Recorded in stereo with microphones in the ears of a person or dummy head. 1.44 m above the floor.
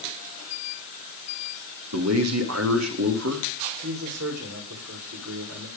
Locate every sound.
1.9 s a man speaking: 80° right, 2.5 m
3.8 s a man speaking: 85° right, 5 m